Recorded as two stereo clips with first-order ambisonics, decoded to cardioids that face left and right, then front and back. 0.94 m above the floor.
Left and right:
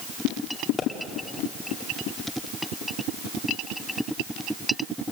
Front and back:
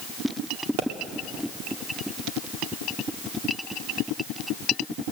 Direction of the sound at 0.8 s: 160° left.